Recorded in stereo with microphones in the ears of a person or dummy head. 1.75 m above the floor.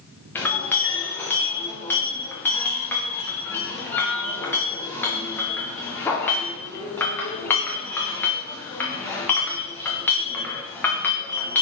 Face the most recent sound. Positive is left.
turn(degrees=10)  # may be behind; listen again after turning